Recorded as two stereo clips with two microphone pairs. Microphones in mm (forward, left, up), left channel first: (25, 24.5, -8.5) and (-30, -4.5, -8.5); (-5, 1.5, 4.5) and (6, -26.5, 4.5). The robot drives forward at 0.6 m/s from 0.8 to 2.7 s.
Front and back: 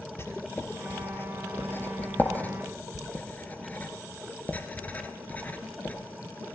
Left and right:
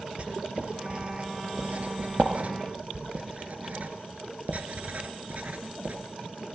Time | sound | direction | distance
0.2 | writing | 25° right | 3 m